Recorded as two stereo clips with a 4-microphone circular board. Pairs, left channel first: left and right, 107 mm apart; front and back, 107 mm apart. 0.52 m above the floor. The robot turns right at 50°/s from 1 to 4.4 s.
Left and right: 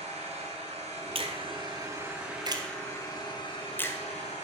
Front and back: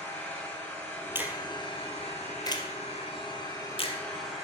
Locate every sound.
0.0 s an engine running: 75° right, 7.5 m; by 4.4 s 95° left, 7.5 m
1.1 s a finger snap: 110° right, 2.0 m; by 4.0 s 30° left, 2.0 m